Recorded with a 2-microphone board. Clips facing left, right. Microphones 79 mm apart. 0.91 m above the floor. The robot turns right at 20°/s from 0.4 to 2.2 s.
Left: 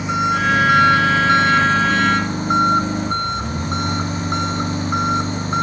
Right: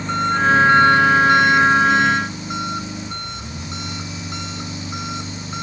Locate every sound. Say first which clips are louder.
0.0 s an engine running: even; 10° left; by 5.6 s 45° left